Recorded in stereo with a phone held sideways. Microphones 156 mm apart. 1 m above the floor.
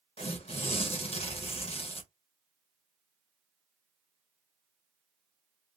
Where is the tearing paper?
45° left (ahead or behind), 0.6 m.